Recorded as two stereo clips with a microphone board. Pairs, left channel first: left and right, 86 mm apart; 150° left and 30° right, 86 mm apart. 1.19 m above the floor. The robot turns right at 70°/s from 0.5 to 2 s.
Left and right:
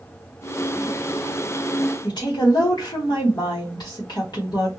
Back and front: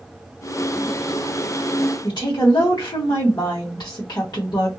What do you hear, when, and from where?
2.0 s a woman speaking: 115° left, 1.2 m